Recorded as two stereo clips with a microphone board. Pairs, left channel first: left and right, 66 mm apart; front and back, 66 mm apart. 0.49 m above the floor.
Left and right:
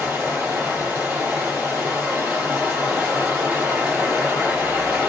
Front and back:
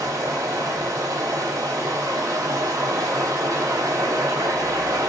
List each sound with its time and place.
0.0 s running water: 160° right, 1.7 m